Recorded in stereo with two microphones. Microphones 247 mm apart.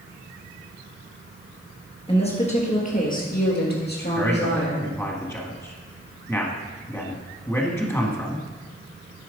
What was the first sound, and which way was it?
A woman speaking, 25° left (ahead or behind).